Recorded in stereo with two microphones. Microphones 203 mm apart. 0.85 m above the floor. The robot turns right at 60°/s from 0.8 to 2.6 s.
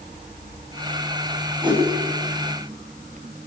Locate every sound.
1.6 s a whoosh: 25° right (ahead or behind), 6.5 m; by 1.8 s 15° right (ahead or behind), 6.5 m